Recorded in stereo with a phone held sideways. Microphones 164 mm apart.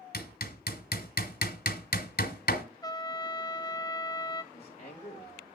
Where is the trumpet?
25° left (ahead or behind), 0.7 m.